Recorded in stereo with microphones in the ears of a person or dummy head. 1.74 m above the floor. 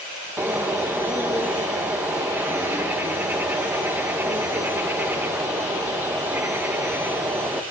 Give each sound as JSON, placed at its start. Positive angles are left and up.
{"t": 0.4, "sound": "a bird", "side_deg": -10, "distance_m": 1.4}